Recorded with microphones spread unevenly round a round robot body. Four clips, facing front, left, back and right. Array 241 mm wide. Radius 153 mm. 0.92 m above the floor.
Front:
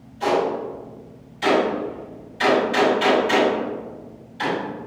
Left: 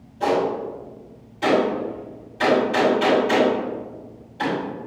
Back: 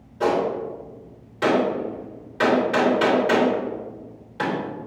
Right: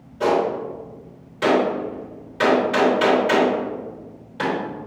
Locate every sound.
0.2 s a gunshot: 140° right, 3 m